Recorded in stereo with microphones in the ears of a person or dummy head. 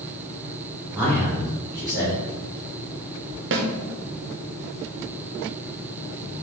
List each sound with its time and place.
0.9 s a man speaking: 10° right (ahead or behind), 1.7 m
3.5 s a snare drum: 60° right (ahead or behind), 0.6 m